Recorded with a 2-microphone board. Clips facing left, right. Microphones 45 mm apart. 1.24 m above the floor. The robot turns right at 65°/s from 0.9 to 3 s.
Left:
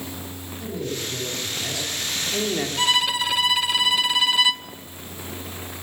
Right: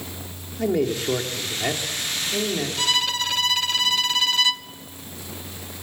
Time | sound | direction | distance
0.6 | a man speaking | 100° right | 3 m
2.8 | a violin | 30° left (ahead or behind) | 0.6 m